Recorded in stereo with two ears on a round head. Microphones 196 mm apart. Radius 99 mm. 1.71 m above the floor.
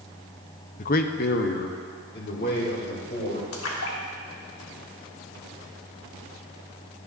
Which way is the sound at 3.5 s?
65° left (ahead or behind).